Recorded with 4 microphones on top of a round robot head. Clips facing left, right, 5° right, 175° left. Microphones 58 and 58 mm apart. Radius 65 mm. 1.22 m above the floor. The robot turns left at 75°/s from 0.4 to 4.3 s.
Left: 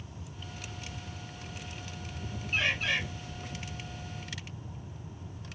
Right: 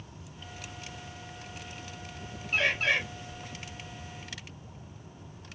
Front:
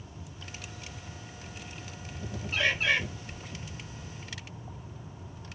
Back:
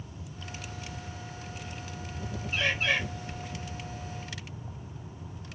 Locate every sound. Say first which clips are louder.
2.5 s a bird: right 3 dB, front 1 dB; 55° right, 2 m; by 3.0 s 90° right, 2 m